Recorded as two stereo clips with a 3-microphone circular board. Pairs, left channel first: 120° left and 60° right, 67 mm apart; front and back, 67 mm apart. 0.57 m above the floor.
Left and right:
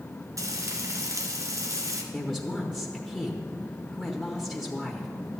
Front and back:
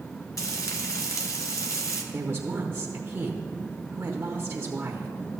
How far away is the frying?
About 1.2 m.